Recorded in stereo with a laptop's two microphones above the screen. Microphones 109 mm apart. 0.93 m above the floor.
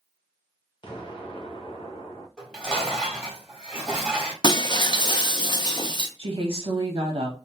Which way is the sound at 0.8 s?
50° left (ahead or behind).